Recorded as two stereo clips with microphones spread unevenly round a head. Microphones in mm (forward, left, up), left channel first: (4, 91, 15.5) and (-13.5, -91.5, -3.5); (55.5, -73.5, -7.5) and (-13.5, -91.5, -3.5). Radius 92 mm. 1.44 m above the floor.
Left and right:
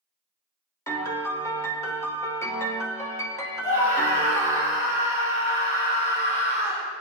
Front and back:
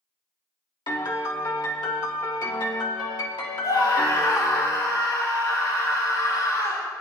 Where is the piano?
10° left, 1.2 m.